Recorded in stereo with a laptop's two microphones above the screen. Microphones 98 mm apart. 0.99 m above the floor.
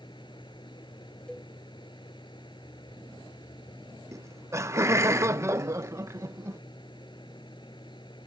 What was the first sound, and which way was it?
A machine running, 55° left (ahead or behind).